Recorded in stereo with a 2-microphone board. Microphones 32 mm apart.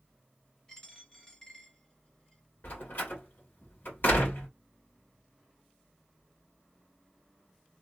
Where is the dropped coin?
20° left (ahead or behind), 1.4 m.